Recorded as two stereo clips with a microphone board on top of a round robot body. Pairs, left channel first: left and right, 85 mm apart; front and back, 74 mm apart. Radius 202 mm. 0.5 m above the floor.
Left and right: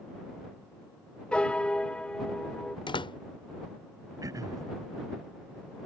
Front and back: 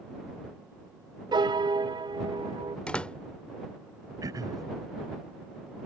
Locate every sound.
1.3 s a piano: 170° left
2.9 s a door slam: 75° left
4.2 s throat clearing: 140° right